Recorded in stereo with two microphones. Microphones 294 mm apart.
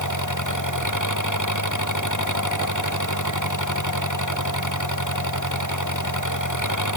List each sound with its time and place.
0.0 s an engine running: 85° left